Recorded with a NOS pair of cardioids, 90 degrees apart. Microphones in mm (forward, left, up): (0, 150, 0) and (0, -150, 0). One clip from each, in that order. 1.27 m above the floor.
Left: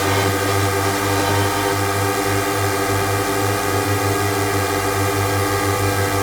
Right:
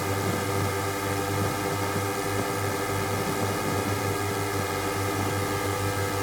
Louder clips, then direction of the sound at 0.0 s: Left 10 dB; 65° left.